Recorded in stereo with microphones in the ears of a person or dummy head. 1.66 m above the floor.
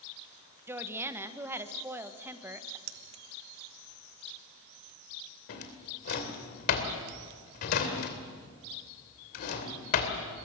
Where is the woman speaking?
10° right (ahead or behind), 1.4 m.